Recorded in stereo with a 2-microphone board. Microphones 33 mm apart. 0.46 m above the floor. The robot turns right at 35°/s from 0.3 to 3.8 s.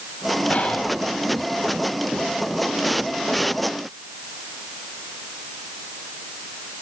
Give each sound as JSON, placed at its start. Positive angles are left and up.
{"t": 0.5, "sound": "whispering", "side_deg": 40, "distance_m": 3.0}